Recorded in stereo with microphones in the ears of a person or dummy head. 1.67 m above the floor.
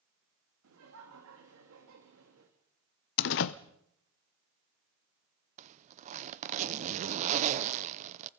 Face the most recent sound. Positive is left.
turn(degrees=-35)  # may be behind; listen again after turning